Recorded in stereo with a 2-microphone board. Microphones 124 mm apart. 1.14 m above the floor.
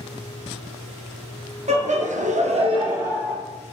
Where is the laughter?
65° right (ahead or behind), 1.0 m; by 3.3 s 15° right (ahead or behind), 1.1 m.